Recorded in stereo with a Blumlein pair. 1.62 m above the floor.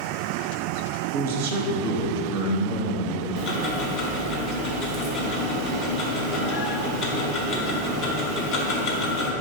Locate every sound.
1.1 s a man speaking: 50° right, 0.8 m
3.4 s ticking: 30° left, 0.8 m